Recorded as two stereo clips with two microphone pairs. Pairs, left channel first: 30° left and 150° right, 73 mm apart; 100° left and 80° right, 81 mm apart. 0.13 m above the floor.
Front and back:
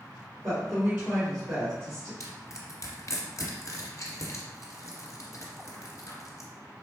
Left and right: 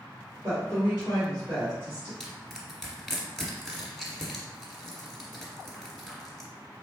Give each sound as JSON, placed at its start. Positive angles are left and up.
{"t": 0.4, "sound": "a woman speaking", "azimuth_deg": -125, "distance_m": 1.8}
{"t": 2.2, "sound": "crushing", "azimuth_deg": 10, "distance_m": 1.4}